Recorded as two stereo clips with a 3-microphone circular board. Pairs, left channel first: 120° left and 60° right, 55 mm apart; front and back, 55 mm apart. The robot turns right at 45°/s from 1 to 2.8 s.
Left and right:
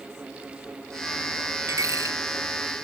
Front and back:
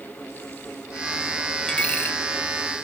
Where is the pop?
I don't hear a pop.